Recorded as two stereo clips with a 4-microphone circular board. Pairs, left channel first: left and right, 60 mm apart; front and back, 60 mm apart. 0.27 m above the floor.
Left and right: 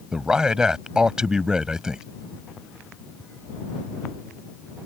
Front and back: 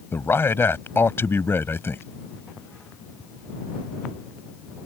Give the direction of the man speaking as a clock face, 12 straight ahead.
1 o'clock.